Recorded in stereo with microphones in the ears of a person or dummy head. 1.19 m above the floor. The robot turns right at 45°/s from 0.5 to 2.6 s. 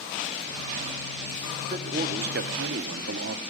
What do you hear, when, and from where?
1.7 s a man speaking: 155° right, 0.6 m; by 3.4 s 110° right, 0.6 m